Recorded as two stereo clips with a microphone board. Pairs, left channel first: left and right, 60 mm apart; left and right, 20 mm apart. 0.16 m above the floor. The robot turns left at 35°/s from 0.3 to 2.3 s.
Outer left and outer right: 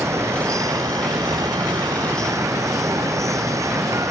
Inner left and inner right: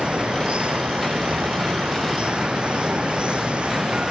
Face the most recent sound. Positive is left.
turn(degrees=-120)